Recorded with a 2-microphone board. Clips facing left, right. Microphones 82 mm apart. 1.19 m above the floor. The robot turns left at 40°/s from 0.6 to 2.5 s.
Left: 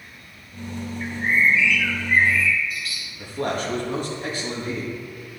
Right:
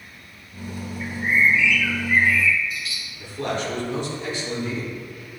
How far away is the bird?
About 1.7 m.